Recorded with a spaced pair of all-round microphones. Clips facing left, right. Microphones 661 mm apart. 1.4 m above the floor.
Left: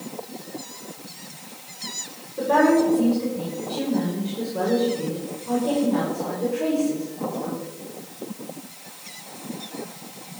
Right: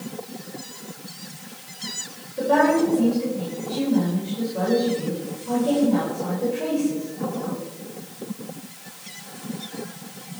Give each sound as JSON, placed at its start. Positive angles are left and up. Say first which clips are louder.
{"t": 2.4, "sound": "a woman speaking", "louder": "left 1 dB", "side_deg": -15, "distance_m": 7.0}